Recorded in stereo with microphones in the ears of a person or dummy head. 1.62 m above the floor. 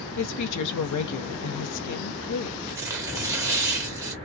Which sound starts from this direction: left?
A woman speaking, at 0.2 s.